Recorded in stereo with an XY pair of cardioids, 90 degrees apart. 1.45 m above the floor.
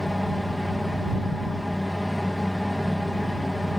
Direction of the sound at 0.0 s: 10° left.